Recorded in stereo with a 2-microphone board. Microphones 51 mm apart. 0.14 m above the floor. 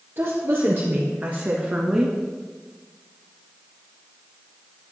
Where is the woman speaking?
50° right (ahead or behind), 2.5 m; by 2.2 s 5° right (ahead or behind), 1.6 m.